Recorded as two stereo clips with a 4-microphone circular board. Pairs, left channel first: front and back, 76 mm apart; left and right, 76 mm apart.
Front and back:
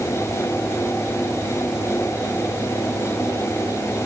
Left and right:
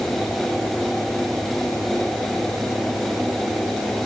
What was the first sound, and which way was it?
Only background noise.